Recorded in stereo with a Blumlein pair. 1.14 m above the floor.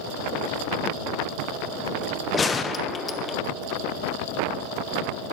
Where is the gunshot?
15° left, 0.7 m.